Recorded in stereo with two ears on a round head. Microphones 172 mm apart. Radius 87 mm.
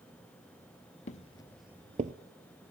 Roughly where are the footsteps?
Left.